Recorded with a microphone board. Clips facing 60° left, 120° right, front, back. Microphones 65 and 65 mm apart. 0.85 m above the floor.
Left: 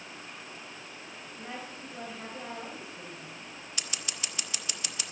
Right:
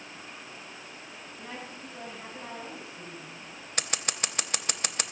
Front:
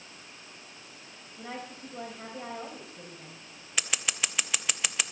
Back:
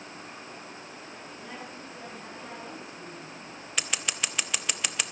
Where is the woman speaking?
10° right, 4 m.